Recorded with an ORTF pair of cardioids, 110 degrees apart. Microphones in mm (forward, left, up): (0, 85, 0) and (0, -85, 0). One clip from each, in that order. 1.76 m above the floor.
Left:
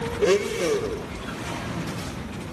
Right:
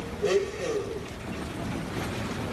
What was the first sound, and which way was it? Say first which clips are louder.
A blender: left 5 dB; 40° left.